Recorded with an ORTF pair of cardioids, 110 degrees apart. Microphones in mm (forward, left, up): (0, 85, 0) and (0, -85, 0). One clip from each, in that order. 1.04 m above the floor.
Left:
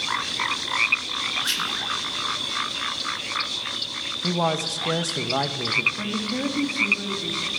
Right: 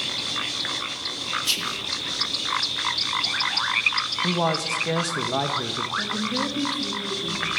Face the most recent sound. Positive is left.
turn(degrees=10)